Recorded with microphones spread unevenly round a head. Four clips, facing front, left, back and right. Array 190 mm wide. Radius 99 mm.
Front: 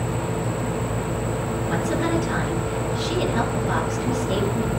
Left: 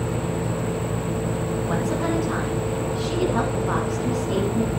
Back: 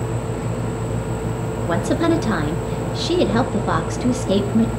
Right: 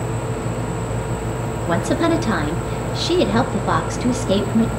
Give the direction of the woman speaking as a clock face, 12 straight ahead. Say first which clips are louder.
Right 8 dB, back 6 dB; 5 o'clock.